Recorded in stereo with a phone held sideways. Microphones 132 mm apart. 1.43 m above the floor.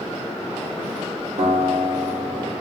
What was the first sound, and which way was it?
A guitar, 75° right (ahead or behind).